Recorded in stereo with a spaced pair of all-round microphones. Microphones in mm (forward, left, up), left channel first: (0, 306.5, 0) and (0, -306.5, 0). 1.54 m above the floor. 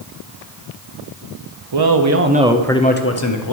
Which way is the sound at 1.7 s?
45° right (ahead or behind).